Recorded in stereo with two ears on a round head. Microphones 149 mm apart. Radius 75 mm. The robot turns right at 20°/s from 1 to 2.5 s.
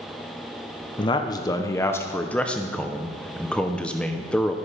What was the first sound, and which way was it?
A man speaking, 140° left.